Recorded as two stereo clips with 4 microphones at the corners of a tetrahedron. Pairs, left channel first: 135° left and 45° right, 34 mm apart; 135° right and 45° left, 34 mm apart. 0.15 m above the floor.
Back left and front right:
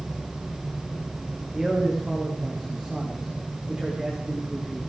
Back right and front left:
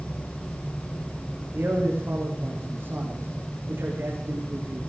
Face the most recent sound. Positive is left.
turn(degrees=30)